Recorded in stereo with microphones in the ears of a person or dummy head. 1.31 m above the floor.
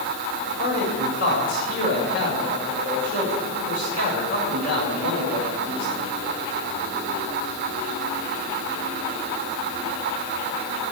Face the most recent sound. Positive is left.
turn(degrees=55)  # may be behind; listen again after turning